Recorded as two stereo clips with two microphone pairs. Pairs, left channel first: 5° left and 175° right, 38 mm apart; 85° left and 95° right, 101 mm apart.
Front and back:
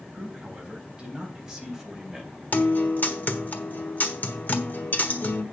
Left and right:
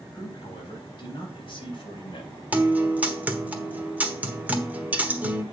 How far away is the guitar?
About 1.2 m.